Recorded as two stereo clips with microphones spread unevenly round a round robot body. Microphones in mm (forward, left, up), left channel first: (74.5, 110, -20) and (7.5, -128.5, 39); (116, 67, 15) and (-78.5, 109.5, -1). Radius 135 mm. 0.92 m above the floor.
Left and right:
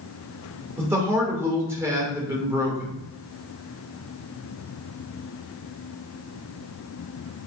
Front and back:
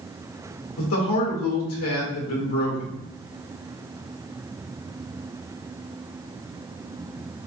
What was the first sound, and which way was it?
A man speaking, 25° right.